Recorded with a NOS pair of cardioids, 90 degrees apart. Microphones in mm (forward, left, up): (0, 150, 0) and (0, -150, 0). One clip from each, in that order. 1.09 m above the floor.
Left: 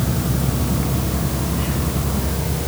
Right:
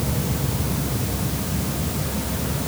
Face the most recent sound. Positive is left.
No sound to turn to.